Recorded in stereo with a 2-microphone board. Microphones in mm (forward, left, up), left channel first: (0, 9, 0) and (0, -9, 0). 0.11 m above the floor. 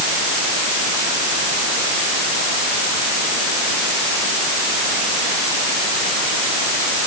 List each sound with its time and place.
Only background noise.